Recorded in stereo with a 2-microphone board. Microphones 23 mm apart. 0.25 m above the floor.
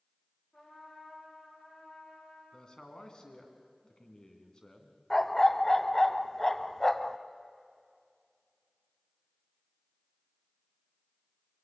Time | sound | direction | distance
0.5 | a trumpet | 60° left (ahead or behind) | 8.5 m
2.5 | a man speaking | 35° left (ahead or behind) | 2.5 m
5.1 | a dog barking | 20° left (ahead or behind) | 0.7 m